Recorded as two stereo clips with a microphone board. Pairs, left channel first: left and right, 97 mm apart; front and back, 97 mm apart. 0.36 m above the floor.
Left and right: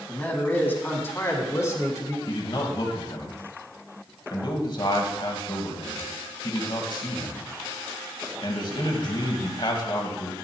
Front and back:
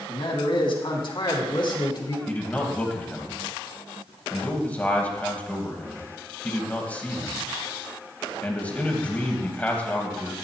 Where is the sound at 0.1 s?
15° left, 3 m; by 2.2 s 40° left, 3 m.